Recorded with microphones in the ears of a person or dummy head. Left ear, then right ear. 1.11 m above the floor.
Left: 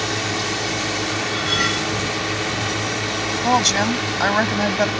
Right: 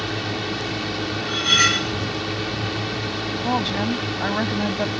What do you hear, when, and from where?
0.0 s a drone: 20° left (ahead or behind)
1.3 s cutlery clinking: 25° right (ahead or behind)
3.4 s a woman speaking: 80° left